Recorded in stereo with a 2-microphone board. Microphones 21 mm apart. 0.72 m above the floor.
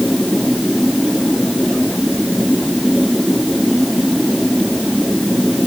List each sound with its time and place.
Only background noise.